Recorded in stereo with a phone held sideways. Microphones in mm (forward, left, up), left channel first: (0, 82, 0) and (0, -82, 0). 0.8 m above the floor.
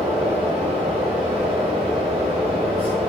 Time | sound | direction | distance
0.0 | a fan | 35° right (ahead or behind) | 1.0 m